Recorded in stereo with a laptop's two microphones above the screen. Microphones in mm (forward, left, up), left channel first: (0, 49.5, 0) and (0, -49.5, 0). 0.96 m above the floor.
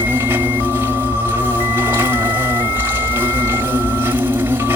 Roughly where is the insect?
Right.